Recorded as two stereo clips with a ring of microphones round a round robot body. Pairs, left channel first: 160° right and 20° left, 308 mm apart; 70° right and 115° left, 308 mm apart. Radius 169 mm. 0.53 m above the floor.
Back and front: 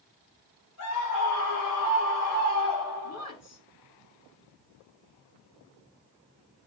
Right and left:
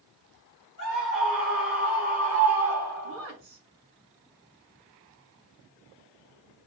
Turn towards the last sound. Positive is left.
turn(degrees=160)